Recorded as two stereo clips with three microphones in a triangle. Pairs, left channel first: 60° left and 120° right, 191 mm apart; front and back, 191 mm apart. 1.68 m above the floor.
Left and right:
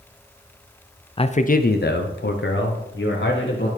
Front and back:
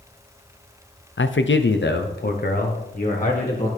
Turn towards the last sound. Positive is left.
turn(degrees=50)